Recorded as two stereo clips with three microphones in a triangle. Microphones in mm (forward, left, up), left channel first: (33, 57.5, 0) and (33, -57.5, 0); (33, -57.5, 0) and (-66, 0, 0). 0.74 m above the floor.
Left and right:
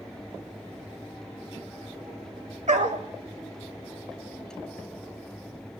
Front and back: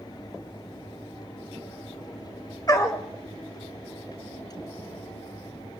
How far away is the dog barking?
About 1.4 m.